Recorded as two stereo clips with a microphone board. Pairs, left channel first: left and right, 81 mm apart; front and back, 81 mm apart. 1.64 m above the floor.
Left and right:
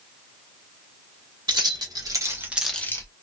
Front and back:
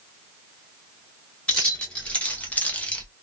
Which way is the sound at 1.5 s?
75° right.